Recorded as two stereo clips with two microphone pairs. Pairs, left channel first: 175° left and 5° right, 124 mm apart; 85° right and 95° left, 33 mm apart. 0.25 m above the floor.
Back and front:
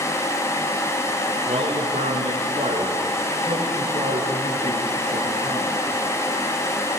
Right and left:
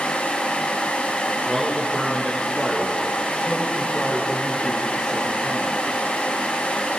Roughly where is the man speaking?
Ahead.